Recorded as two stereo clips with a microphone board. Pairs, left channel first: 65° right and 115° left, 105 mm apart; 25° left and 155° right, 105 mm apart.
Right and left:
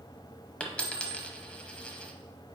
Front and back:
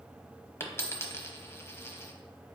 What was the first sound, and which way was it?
A dropped coin, straight ahead.